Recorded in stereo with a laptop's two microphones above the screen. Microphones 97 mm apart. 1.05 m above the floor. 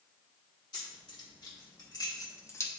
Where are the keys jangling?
45° left (ahead or behind), 1.9 m; by 2.7 s 25° left (ahead or behind), 0.6 m.